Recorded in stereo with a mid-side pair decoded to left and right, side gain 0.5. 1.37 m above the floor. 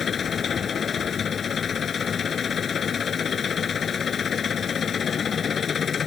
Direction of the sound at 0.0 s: 45° left.